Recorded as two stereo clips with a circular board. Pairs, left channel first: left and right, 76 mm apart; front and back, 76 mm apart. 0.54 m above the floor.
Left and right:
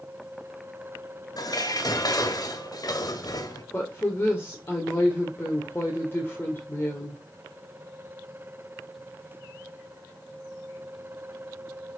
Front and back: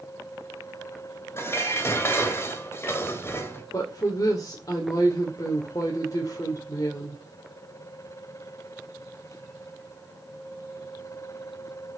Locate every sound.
1.4 s dishes clattering: 55° left, 1.6 m
3.7 s a woman speaking: 30° left, 2 m